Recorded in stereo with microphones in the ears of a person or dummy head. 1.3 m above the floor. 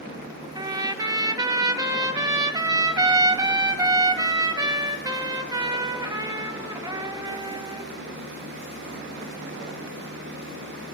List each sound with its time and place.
0.6 s a trumpet: 20° right (ahead or behind), 1.0 m